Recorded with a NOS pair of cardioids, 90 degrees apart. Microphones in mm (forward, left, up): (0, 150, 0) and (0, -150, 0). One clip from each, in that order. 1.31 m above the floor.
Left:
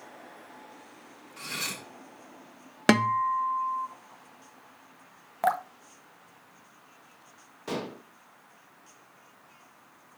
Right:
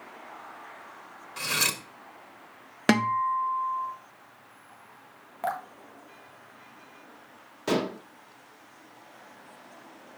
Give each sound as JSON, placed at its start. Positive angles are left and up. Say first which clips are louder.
{"t": 1.4, "sound": "cutlery clinking", "louder": "right 7 dB", "azimuth_deg": -60, "distance_m": 1.4}
{"t": 2.9, "sound": "a guitar", "louder": "left 1 dB", "azimuth_deg": 10, "distance_m": 0.8}
{"t": 5.4, "sound": "dripping", "louder": "left 5 dB", "azimuth_deg": 30, "distance_m": 0.7}
{"t": 7.7, "sound": "dishes clattering", "louder": "right 7 dB", "azimuth_deg": -35, "distance_m": 1.0}